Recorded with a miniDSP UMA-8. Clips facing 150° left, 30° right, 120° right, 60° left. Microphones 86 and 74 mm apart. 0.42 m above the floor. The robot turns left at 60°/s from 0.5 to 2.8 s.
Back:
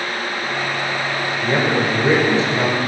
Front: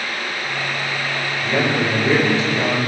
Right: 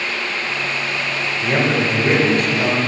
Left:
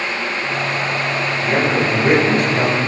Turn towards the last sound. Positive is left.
turn(degrees=90)